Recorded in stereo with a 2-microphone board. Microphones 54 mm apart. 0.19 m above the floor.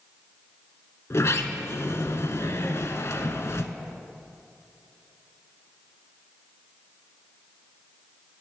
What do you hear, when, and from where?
1.1 s a sliding door: 60° left (ahead or behind), 0.8 m